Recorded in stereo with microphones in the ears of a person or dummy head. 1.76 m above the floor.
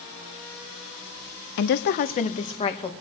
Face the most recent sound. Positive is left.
turn(degrees=30)  # may be behind; listen again after turning